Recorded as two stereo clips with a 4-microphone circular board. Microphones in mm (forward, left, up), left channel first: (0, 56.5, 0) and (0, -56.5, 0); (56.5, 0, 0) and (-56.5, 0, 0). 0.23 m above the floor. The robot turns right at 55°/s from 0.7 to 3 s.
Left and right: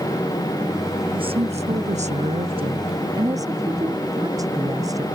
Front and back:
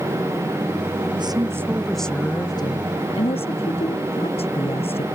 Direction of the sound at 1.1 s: 135° right.